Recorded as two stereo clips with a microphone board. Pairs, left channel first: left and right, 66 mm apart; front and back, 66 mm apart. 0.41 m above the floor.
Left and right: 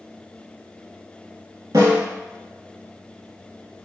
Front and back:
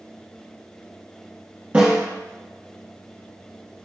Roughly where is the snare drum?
Right.